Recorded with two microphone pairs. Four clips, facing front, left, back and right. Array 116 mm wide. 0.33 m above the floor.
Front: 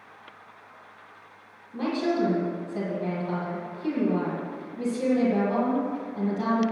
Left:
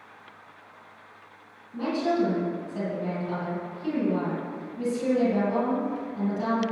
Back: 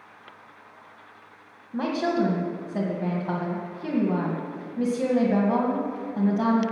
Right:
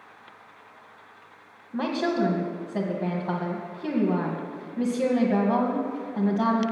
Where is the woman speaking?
120° right, 1.9 m.